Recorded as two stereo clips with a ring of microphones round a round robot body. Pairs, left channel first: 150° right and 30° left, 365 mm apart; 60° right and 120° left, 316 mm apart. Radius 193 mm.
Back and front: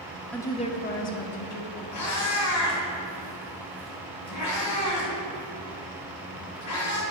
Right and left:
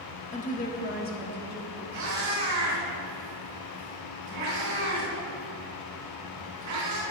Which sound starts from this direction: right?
A woman speaking, at 0.3 s.